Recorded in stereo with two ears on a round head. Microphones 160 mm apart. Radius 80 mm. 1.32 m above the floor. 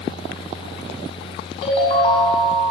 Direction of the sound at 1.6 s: 30° left (ahead or behind).